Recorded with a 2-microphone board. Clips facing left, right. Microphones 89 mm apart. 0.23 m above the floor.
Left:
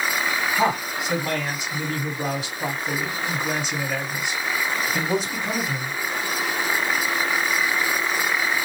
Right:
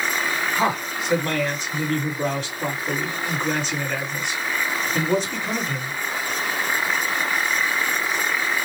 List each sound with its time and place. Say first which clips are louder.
0.6 s a man speaking: left 1 dB; 10° left (ahead or behind), 1.8 m